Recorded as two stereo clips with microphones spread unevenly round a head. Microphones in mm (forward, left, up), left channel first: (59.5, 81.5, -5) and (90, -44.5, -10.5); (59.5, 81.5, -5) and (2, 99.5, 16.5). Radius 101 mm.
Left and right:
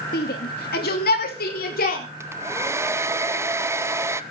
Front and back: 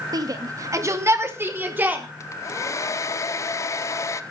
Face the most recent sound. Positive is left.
turn(degrees=-5)